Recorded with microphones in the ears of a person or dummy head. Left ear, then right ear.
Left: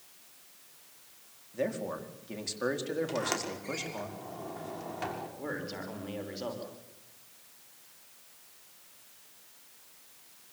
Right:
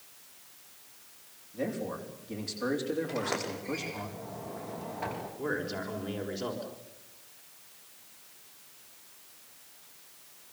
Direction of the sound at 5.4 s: 10° left (ahead or behind).